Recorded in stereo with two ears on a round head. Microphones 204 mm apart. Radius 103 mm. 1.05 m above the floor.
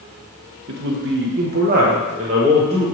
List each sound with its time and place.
0.7 s a man speaking: 50° right (ahead or behind), 1.1 m; by 2.9 s 20° right (ahead or behind), 1.7 m